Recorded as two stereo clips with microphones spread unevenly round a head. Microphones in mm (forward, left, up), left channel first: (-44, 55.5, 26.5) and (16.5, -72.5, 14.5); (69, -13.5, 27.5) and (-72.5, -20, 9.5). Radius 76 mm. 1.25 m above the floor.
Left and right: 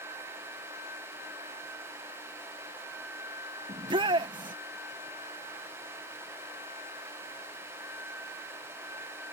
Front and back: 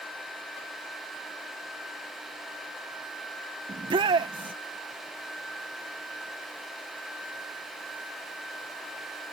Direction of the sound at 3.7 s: 120° right.